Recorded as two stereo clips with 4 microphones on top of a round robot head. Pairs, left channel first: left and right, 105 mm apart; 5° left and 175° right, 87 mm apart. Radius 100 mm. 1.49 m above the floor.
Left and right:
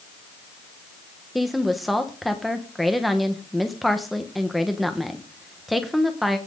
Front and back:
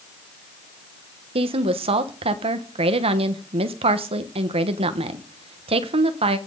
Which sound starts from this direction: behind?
A woman speaking, at 1.4 s.